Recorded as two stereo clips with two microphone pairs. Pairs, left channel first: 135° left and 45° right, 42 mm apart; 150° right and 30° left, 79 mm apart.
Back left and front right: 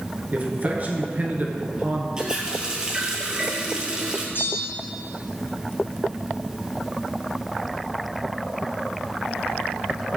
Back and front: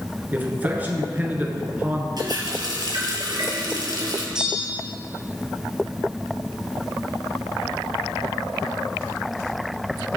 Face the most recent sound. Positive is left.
turn(degrees=115)